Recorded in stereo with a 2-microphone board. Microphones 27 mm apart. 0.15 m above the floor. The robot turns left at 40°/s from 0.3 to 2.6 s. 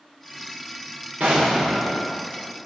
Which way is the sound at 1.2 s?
60° right.